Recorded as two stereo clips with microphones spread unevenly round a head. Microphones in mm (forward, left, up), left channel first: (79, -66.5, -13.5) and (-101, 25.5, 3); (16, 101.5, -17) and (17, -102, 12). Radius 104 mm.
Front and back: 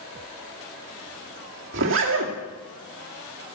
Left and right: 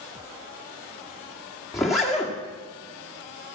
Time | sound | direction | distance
1.7 | a zipper | straight behind | 2.0 m